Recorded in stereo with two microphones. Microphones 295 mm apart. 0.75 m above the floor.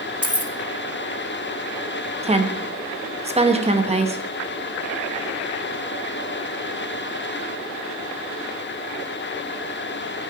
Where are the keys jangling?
50° left (ahead or behind), 0.6 m.